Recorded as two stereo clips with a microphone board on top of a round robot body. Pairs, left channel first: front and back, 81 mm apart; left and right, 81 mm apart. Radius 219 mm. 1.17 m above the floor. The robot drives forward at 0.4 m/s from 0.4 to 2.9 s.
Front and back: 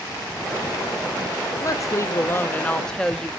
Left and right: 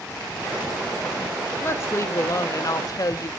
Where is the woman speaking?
35° left, 0.9 m; by 3.3 s 80° left, 0.7 m.